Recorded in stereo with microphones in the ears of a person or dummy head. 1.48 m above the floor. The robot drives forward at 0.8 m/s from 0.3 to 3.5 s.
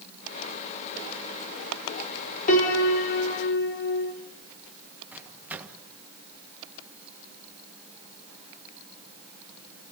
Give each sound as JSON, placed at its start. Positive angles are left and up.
{"t": 2.5, "sound": "a piano", "side_deg": 45, "distance_m": 3.0}
{"t": 5.1, "sound": "a microwave", "side_deg": -5, "distance_m": 1.6}